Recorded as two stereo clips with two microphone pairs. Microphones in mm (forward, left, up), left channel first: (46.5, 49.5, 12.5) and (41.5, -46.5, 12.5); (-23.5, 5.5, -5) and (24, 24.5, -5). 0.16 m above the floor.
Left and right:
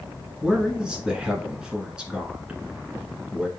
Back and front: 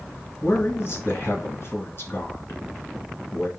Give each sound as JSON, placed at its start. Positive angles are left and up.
{"t": 0.4, "sound": "a man speaking", "azimuth_deg": -175, "distance_m": 1.6}